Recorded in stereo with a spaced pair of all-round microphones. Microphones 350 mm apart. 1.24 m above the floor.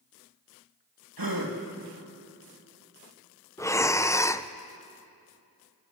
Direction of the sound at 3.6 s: 10° left (ahead or behind).